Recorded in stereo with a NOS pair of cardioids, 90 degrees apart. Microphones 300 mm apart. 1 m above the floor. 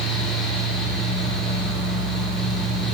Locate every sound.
0.0 s a fan: straight ahead, 1.3 m